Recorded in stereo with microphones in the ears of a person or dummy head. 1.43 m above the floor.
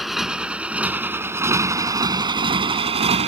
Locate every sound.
0.0 s a motorcycle: centre (ahead or behind); by 3.3 s 30° right (ahead or behind)